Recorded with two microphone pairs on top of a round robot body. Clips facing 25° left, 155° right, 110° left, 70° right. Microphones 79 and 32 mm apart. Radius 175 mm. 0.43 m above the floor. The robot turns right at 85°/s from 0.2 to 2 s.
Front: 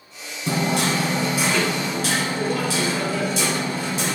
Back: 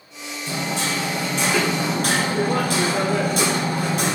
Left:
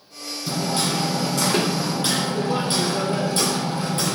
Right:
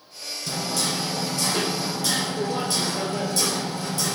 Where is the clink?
I don't hear a clink.